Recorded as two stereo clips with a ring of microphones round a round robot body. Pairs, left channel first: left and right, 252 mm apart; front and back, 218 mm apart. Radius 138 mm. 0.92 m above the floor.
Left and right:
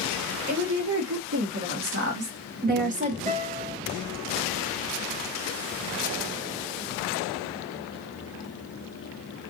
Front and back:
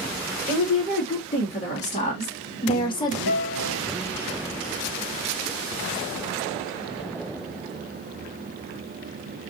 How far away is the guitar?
About 1.6 m.